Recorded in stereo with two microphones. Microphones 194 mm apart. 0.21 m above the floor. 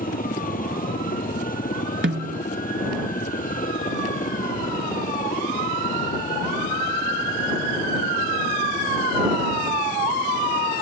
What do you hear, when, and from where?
0.0 s a helicopter: 45° left (ahead or behind)
2.0 s a snare drum: 85° right